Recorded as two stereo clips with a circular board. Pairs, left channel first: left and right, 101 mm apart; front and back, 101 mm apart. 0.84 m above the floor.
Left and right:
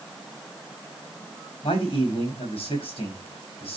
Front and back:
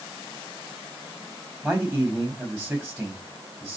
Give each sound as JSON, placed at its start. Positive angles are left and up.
{"t": 1.6, "sound": "a man speaking", "azimuth_deg": 115, "distance_m": 6.0}